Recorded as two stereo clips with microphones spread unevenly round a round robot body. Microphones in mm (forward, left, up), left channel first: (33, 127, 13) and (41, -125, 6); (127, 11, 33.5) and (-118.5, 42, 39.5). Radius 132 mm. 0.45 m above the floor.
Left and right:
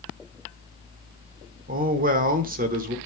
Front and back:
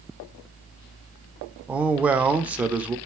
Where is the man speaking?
105° right, 1.1 m.